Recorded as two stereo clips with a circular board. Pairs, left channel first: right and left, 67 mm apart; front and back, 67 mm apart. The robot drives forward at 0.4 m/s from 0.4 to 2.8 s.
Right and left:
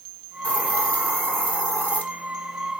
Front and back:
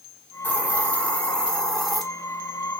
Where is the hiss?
40° right, 1.4 m; by 2.0 s 90° right, 1.2 m.